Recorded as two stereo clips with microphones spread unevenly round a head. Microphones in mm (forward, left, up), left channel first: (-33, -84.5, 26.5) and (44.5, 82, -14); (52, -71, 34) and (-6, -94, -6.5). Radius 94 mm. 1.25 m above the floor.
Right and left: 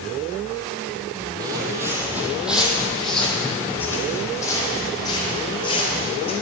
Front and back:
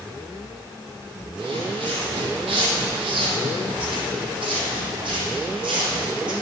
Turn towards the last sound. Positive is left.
turn(degrees=-170)